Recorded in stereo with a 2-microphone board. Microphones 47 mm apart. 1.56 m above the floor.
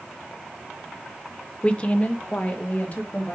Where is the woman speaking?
25° left (ahead or behind), 0.7 m; by 3.4 s 35° left (ahead or behind), 2.5 m.